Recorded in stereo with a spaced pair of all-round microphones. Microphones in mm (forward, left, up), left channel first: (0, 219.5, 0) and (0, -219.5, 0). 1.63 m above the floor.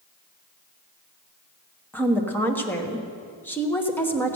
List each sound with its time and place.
1.9 s a woman speaking: 5° left (ahead or behind), 1.3 m